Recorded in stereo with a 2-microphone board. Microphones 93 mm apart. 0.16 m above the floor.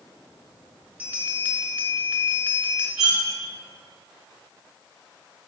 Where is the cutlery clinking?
10° right (ahead or behind), 0.8 m.